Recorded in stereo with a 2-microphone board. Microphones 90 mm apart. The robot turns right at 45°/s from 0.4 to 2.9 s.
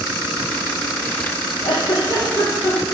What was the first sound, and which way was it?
A giggle, 105° left.